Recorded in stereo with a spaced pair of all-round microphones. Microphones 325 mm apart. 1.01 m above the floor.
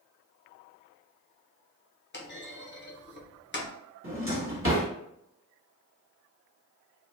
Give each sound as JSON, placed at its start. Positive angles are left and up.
{"t": 2.1, "sound": "a clunk", "side_deg": 35, "distance_m": 0.6}
{"t": 4.0, "sound": "a drawer", "side_deg": -40, "distance_m": 1.3}